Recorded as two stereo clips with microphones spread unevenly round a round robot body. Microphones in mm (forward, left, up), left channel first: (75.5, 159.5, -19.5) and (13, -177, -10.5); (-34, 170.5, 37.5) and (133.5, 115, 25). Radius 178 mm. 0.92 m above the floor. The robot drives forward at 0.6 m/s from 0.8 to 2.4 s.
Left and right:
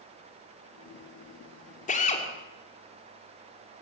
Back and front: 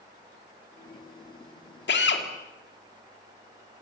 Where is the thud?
No thud in this recording.